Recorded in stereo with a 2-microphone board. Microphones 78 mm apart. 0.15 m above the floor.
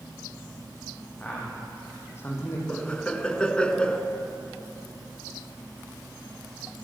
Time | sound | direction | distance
1.2 | a man speaking | 20° left (ahead or behind) | 7.5 m
2.7 | laughter | 15° left (ahead or behind) | 1.9 m